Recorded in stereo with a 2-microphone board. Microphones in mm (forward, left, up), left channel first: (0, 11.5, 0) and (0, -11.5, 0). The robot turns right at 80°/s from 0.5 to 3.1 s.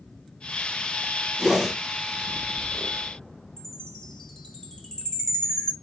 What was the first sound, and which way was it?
A whoosh, 40° right (ahead or behind).